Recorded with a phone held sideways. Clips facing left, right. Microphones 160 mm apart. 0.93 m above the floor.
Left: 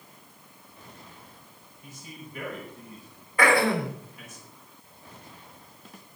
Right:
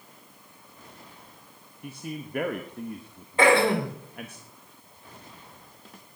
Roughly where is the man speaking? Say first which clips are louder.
Right 9 dB; right.